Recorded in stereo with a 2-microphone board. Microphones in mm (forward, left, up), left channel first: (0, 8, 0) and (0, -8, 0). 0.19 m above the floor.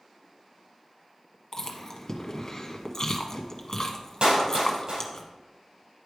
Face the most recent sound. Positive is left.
turn(degrees=-75)  # may be behind; listen again after turning